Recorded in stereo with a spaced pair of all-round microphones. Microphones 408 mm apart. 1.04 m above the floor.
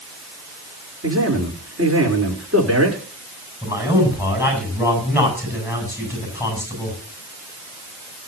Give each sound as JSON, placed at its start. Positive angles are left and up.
{"t": 1.0, "sound": "a man speaking", "side_deg": -35, "distance_m": 3.5}
{"t": 3.6, "sound": "a man speaking", "side_deg": -5, "distance_m": 8.0}